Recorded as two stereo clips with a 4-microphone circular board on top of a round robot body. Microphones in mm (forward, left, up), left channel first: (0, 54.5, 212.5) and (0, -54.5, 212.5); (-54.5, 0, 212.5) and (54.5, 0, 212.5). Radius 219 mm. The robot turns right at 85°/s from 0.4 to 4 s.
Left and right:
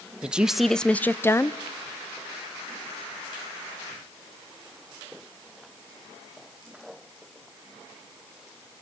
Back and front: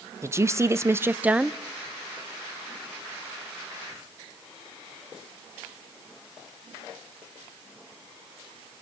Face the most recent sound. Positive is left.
turn(degrees=-70)